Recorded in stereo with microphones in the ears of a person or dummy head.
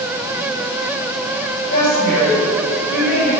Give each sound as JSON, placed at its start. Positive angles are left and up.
{"t": 1.7, "sound": "a woman speaking", "side_deg": 60, "distance_m": 4.0}